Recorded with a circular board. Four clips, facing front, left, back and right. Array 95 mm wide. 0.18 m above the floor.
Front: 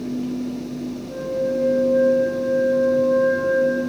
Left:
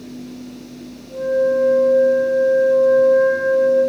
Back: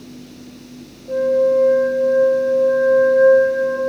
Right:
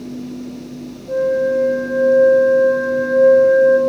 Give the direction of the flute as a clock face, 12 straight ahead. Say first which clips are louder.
Right 1 dB, back 9 dB; 4 o'clock.